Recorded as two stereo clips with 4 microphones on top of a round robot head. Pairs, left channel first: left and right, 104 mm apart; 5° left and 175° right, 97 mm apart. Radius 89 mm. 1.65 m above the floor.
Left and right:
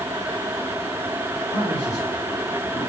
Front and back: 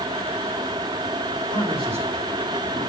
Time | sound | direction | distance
1.5 | a man speaking | 175° right | 6.5 m